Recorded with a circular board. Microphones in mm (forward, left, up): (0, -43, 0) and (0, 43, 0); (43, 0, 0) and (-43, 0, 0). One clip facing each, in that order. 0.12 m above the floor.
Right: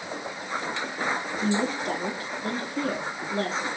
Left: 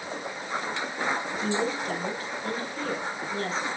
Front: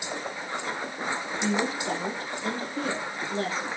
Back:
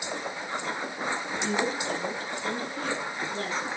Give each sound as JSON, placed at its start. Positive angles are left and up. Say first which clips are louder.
{"t": 1.4, "sound": "a woman speaking", "louder": "right 3 dB, front 1 dB", "azimuth_deg": -45, "distance_m": 2.5}